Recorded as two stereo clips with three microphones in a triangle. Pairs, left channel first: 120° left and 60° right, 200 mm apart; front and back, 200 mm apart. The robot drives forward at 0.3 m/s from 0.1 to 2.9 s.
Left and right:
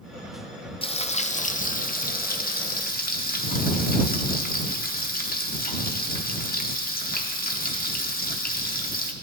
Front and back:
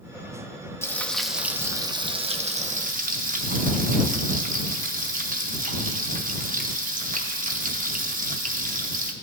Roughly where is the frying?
Left.